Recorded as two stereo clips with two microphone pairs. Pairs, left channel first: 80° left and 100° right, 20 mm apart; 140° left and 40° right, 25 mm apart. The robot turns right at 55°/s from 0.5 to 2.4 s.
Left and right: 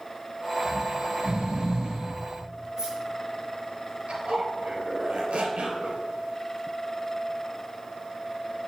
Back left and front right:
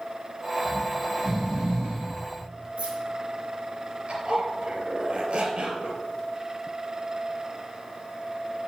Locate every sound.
0.7 s snoring: 130° right, 5.5 m; by 2.2 s 45° right, 5.5 m
2.8 s keys jangling: 45° right, 4.5 m
4.1 s a zipper: 75° right, 3 m